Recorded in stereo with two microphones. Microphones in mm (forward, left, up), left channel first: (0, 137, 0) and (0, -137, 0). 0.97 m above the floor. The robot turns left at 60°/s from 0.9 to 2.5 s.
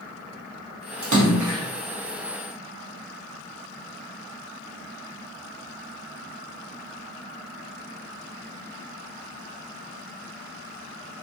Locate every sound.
1.0 s a splash: 75° right, 0.7 m; by 1.6 s 110° right, 0.7 m